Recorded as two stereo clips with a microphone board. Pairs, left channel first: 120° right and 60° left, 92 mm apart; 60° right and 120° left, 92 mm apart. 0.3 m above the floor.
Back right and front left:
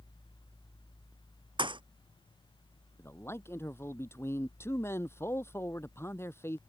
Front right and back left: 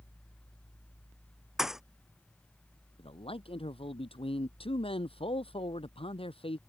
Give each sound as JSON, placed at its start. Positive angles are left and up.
{"t": 1.6, "sound": "a thud", "azimuth_deg": 35}
{"t": 3.0, "sound": "a man speaking", "azimuth_deg": -55}